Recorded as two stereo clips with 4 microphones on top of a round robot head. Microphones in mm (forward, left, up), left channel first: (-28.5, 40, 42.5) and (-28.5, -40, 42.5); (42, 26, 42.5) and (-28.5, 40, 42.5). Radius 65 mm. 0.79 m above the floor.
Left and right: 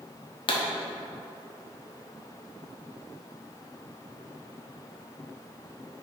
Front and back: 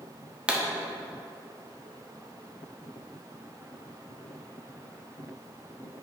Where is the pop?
95° left, 1.3 m.